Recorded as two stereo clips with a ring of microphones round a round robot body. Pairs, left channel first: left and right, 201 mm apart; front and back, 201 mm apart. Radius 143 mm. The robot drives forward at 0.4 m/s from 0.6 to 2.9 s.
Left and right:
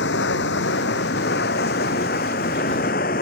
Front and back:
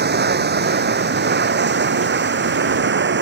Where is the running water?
145° left; by 3.2 s 150° left.